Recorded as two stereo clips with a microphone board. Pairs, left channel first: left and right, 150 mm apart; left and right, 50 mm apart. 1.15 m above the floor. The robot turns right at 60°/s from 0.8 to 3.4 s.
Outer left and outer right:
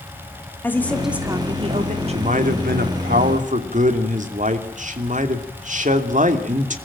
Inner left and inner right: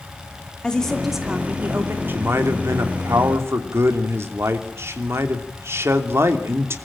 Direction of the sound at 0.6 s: 170° left.